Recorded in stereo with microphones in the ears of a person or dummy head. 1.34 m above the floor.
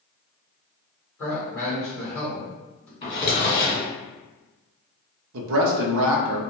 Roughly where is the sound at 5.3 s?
Right.